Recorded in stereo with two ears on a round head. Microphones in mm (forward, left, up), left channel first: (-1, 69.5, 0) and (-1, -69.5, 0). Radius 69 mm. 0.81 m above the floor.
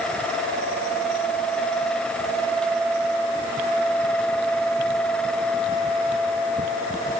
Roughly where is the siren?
No siren in this recording.